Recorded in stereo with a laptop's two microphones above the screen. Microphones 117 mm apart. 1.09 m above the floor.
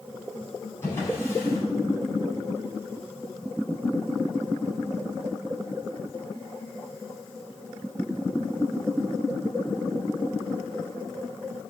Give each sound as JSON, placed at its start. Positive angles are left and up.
{"t": 0.8, "sound": "a drawer", "side_deg": 20, "distance_m": 4.5}